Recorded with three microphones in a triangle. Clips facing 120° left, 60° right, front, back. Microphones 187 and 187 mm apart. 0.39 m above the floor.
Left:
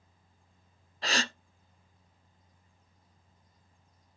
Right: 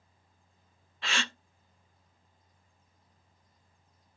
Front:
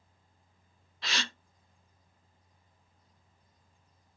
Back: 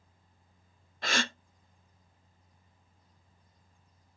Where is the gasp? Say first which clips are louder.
Left 4 dB, back 6 dB; 165° left, 0.5 m.